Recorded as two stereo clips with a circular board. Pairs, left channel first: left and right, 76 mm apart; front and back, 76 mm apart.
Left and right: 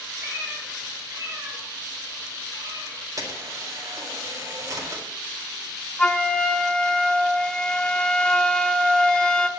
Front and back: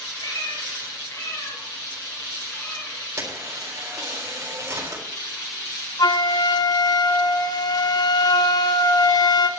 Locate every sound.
0.2 s a cat meowing: 25° right, 5.5 m; by 3.0 s 70° right, 4 m
3.2 s a camera shutter: 130° right, 3.5 m
6.0 s a flute: 15° left, 0.7 m